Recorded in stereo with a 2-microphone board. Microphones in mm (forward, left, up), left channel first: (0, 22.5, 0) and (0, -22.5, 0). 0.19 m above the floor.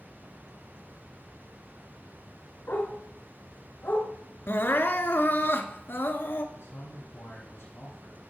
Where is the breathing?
I don't hear breathing.